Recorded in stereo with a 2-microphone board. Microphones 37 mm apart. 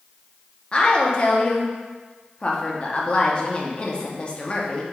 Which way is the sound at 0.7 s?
30° left (ahead or behind).